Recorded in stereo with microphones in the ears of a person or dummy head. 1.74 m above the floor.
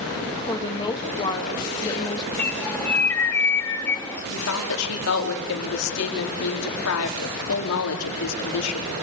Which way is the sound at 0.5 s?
20° left (ahead or behind).